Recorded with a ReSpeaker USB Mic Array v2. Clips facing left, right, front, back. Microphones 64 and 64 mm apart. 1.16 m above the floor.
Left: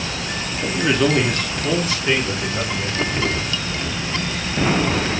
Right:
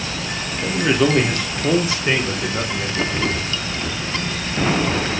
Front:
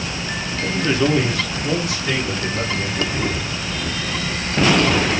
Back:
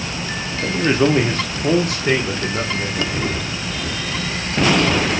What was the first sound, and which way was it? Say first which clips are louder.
A man speaking: right 1 dB, back 3 dB; 175° left.